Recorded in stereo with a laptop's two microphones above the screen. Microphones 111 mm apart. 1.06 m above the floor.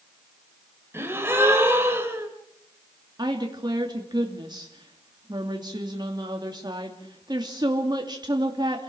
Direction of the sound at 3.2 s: 40° right (ahead or behind).